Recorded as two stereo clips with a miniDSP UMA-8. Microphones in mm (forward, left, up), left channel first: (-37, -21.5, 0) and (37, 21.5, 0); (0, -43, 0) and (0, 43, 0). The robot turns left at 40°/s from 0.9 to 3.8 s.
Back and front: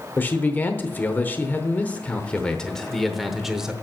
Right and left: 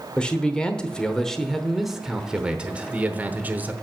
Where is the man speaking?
150° right, 0.9 m; by 3.7 s 95° left, 0.9 m.